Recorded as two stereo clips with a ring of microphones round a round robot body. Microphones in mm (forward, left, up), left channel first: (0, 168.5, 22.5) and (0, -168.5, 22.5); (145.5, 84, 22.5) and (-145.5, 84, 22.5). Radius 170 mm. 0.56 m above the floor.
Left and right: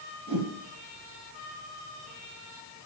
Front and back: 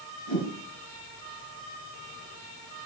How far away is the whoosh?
About 3.5 m.